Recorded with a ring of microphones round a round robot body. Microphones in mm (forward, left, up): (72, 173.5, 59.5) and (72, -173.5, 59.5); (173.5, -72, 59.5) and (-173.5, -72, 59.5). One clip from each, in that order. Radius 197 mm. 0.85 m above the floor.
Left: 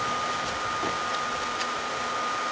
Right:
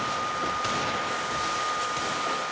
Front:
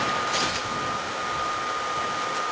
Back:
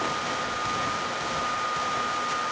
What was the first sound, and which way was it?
Only background noise.